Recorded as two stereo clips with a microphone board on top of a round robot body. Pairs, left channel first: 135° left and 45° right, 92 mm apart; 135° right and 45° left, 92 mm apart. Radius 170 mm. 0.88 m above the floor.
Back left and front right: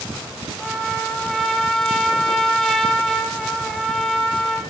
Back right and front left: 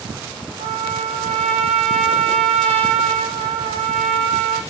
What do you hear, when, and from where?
0.6 s a trumpet: 50° left, 1.8 m